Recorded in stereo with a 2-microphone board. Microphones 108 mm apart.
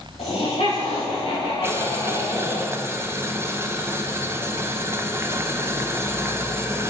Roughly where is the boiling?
Right.